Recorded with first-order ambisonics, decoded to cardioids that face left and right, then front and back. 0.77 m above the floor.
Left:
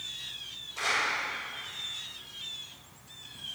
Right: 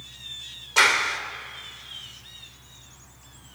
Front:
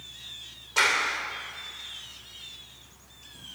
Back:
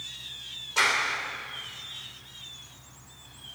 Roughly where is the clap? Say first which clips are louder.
Right 9 dB, front 1 dB; right.